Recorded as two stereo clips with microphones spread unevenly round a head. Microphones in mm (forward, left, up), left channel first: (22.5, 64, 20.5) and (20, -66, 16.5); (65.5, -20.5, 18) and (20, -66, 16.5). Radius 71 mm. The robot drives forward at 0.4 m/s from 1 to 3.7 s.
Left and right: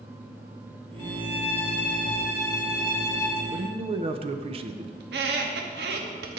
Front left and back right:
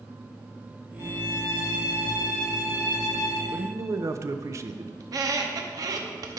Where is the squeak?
105° right, 0.9 m.